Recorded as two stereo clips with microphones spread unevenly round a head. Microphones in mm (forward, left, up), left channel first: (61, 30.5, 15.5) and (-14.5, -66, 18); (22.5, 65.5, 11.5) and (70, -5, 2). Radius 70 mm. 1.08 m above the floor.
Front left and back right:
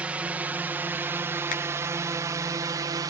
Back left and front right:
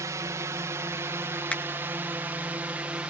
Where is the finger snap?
50° left.